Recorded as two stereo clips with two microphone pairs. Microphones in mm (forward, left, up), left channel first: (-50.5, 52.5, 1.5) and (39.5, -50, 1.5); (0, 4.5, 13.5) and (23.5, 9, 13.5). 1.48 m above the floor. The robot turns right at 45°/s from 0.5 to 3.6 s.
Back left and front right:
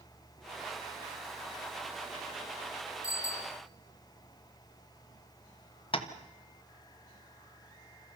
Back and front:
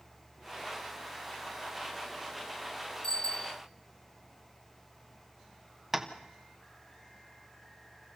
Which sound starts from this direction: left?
Tapping, at 5.9 s.